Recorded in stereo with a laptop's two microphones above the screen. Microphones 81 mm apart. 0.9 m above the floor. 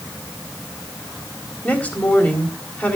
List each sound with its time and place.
1.6 s a woman speaking: 10° left (ahead or behind), 3.5 m